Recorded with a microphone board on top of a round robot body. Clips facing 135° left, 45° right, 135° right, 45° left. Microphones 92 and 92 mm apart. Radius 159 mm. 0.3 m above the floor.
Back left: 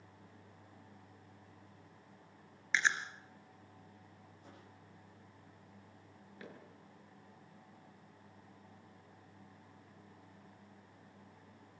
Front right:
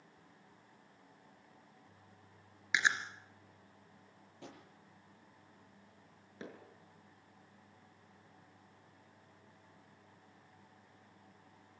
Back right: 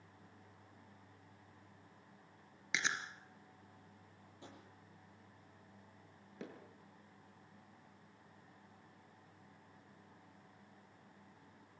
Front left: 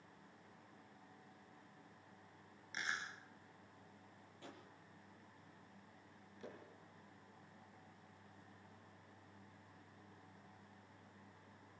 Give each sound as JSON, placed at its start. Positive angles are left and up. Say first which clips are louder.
{"t": 2.7, "sound": "chewing", "louder": "front right 1 dB, back right 5 dB", "azimuth_deg": -120, "distance_m": 2.5}
{"t": 4.4, "sound": "a drawer", "louder": "front right 7 dB, even", "azimuth_deg": -65, "distance_m": 7.5}
{"t": 6.4, "sound": "hammering", "louder": "front right 3 dB, back right 4 dB", "azimuth_deg": -110, "distance_m": 7.0}